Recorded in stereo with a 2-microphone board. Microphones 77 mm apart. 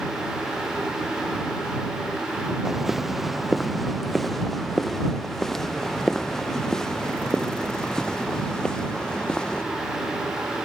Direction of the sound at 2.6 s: 5° right (ahead or behind).